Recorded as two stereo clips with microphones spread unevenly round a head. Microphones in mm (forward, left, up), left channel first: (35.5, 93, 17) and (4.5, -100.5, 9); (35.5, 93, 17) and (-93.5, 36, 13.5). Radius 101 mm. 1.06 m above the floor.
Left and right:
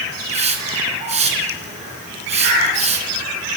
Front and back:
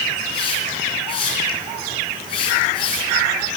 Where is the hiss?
40° right, 3.5 m.